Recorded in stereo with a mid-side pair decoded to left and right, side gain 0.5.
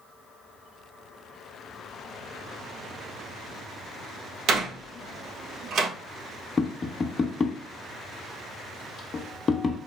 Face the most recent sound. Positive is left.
turn(degrees=35)